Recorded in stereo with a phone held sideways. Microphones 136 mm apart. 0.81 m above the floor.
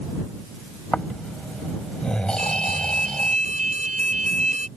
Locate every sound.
0.9 s snoring: 5° left (ahead or behind)
2.4 s an alarm: 65° right (ahead or behind)